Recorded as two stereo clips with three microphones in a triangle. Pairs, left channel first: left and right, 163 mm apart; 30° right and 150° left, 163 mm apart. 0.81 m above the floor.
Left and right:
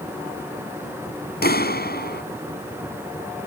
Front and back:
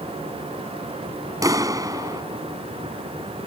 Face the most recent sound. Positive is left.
turn(degrees=80)